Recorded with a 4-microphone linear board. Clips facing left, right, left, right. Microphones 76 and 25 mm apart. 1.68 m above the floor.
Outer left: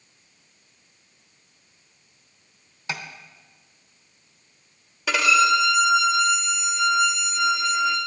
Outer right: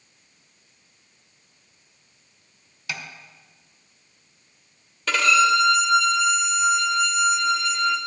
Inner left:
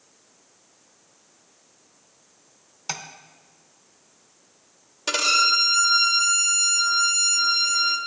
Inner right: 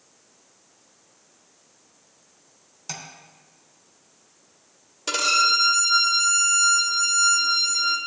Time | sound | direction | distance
2.9 | tapping | 30° left (ahead or behind) | 0.9 m
5.1 | a violin | 10° left (ahead or behind) | 0.9 m